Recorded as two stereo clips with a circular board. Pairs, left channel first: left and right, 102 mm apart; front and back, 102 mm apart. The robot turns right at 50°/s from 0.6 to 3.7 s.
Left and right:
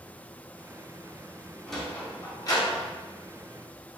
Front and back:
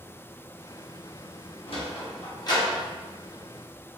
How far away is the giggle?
I don't hear a giggle.